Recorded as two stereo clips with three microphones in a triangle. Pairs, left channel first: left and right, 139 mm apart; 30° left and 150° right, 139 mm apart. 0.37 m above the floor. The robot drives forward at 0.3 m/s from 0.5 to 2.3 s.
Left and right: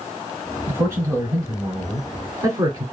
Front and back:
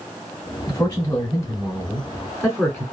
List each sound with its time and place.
0.7 s a man speaking: 30° right, 1.2 m; by 2.9 s 65° right, 1.0 m